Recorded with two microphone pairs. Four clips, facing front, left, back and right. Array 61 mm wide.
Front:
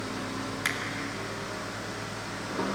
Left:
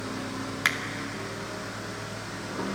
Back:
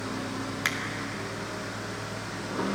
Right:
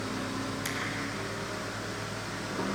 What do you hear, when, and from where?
0.7 s a finger snap: 100° left, 2 m